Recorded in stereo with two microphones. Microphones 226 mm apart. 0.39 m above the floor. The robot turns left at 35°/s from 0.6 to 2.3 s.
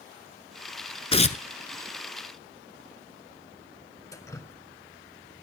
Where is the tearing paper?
25° left (ahead or behind), 0.7 m; by 1.4 s 35° left (ahead or behind), 0.7 m.